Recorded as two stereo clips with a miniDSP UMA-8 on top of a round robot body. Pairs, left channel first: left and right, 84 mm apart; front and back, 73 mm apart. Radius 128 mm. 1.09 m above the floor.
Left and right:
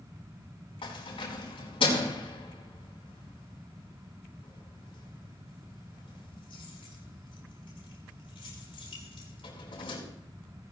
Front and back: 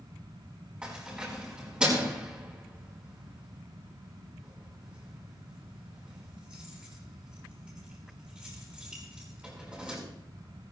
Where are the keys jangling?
100° left, 6.5 m.